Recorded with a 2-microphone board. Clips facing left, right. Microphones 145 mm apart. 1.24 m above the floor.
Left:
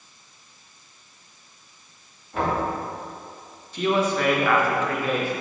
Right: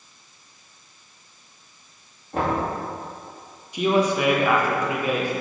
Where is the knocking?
40° right (ahead or behind), 2 m.